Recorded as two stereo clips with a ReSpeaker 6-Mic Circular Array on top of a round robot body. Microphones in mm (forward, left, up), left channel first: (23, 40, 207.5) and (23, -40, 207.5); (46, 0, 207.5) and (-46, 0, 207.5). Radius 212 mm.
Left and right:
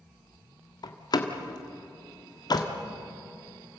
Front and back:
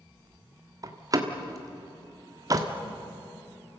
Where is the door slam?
125° left, 1.5 m.